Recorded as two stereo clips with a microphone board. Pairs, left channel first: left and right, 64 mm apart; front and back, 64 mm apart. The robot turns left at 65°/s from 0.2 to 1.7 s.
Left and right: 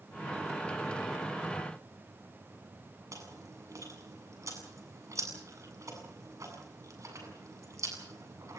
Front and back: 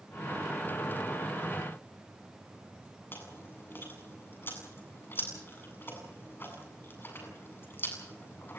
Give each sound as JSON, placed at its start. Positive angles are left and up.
{"t": 3.1, "sound": "chewing", "azimuth_deg": -55, "distance_m": 7.5}